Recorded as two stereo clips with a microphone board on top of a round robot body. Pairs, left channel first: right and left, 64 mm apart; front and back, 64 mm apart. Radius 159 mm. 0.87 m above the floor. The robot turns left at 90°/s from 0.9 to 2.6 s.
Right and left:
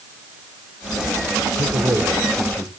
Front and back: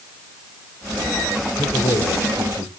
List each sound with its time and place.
1.6 s a man speaking: 65° left, 3.5 m; by 2.7 s 30° right, 3.5 m